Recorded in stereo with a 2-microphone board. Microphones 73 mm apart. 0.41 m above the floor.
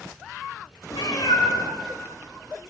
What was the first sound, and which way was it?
A cat meowing, 65° left (ahead or behind).